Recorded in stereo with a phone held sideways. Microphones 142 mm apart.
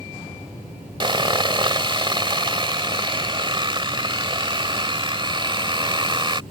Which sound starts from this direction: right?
Sawing, at 1.0 s.